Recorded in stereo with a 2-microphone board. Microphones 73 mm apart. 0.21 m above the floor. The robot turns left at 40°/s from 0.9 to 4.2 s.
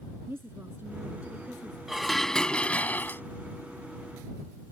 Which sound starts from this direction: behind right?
A woman speaking, at 0.3 s.